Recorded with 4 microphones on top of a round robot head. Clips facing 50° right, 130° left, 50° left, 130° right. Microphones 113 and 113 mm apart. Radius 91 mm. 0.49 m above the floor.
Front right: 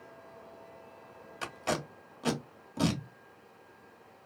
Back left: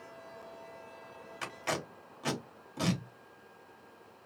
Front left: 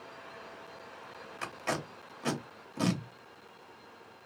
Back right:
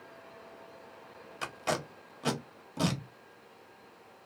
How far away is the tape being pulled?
About 1.0 m.